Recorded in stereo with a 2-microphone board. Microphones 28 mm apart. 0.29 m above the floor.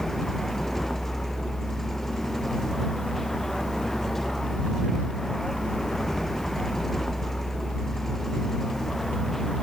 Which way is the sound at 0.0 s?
10° left (ahead or behind).